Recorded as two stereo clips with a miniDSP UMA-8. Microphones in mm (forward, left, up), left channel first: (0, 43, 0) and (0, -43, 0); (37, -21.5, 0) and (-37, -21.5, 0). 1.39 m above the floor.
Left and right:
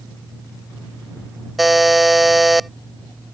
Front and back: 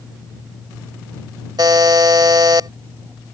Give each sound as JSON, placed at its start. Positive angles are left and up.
{"t": 1.6, "sound": "a buzzer", "azimuth_deg": 180}